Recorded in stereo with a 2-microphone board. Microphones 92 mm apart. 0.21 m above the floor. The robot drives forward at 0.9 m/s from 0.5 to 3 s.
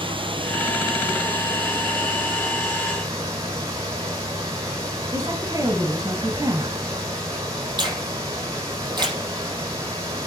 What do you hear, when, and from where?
0.0 s running water: 70° right (ahead or behind), 2.5 m; by 10.3 s 35° right (ahead or behind), 4 m
5.1 s a woman speaking: 40° right (ahead or behind), 1.6 m
7.8 s a finger snap: 50° right (ahead or behind), 7.5 m